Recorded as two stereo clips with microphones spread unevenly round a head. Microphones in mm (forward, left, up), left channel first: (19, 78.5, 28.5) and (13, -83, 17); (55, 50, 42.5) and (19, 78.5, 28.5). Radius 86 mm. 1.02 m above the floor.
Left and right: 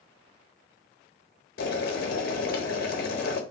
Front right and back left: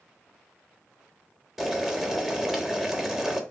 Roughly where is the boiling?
Ahead left.